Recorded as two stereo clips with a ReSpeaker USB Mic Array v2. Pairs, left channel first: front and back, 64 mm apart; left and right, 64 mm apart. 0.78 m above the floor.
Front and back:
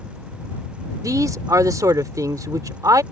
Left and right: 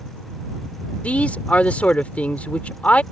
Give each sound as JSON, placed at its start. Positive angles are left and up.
{"t": 1.0, "sound": "a man speaking", "azimuth_deg": 155}